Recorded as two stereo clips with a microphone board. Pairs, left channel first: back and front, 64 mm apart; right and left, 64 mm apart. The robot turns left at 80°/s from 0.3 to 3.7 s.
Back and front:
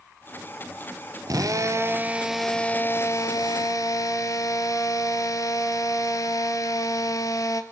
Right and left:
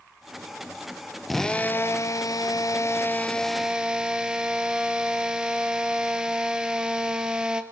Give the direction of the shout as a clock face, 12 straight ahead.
No shout in this recording.